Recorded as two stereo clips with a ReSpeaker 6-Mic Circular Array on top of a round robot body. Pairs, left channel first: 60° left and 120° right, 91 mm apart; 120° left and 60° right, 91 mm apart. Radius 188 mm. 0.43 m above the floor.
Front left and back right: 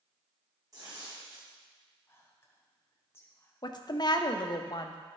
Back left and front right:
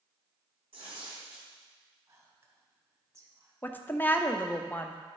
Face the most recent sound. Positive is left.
turn(degrees=60)